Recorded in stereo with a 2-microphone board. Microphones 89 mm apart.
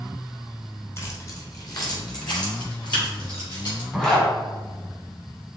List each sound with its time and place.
1.0 s keys jangling: 30° left (ahead or behind), 1.1 m; by 3.8 s 60° left (ahead or behind), 3.5 m
3.9 s a zipper: 10° left (ahead or behind), 1.8 m